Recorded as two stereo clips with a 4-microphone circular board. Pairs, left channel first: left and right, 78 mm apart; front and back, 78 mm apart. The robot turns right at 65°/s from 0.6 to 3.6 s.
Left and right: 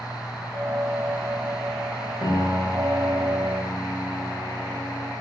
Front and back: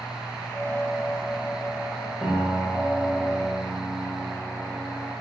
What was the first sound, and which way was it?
A piano, 75° left.